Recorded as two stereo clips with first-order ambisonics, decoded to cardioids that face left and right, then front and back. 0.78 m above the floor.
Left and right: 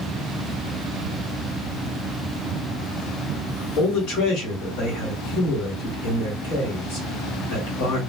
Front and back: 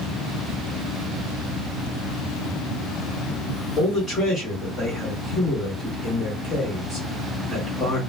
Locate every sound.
3.8 s a man speaking: 65° left, 1.9 m